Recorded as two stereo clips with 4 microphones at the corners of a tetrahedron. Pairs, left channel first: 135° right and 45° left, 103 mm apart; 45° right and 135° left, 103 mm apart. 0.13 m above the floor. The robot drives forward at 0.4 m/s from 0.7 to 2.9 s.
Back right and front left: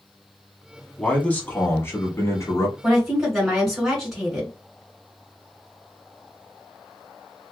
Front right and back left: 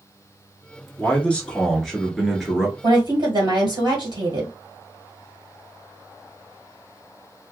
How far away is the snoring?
No snoring in this recording.